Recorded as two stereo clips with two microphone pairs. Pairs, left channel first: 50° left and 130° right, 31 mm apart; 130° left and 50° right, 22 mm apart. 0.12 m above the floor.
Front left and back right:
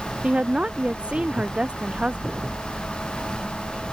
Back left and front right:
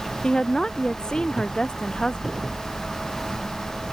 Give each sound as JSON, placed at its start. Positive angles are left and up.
{"t": 0.2, "sound": "a woman speaking", "azimuth_deg": 180}